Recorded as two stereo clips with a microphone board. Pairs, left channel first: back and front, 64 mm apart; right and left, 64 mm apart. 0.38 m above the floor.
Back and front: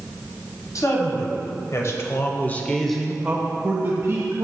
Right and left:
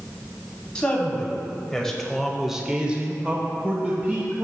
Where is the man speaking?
165° right, 2.5 m; by 4.5 s 30° left, 2 m.